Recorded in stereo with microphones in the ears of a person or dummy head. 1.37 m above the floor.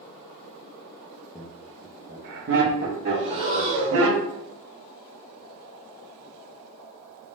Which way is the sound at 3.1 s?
40° right (ahead or behind).